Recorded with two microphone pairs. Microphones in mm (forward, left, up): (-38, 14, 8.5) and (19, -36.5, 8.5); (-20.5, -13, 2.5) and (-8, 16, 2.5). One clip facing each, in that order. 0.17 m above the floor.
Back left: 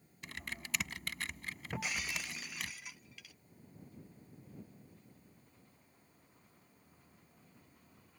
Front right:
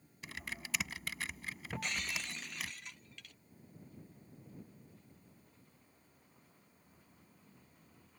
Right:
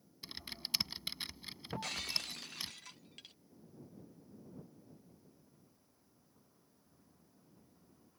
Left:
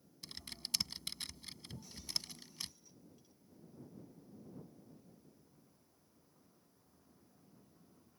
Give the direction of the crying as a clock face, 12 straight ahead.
I don't hear crying.